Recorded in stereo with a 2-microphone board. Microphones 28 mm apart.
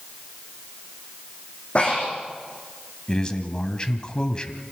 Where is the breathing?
45° left (ahead or behind), 8 m.